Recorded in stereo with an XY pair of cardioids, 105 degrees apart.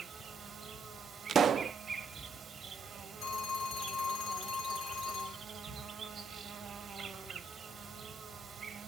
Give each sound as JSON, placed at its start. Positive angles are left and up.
{"t": 0.0, "sound": "an insect", "azimuth_deg": -40, "distance_m": 1.3}
{"t": 1.3, "sound": "a pop", "azimuth_deg": -45, "distance_m": 0.5}
{"t": 3.2, "sound": "a phone ringing", "azimuth_deg": 70, "distance_m": 1.8}